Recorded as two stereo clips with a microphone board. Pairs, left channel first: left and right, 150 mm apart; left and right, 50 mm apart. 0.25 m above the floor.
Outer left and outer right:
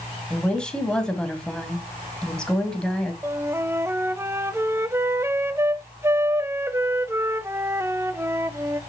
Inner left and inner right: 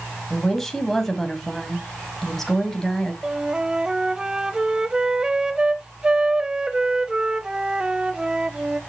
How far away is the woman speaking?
About 1.8 m.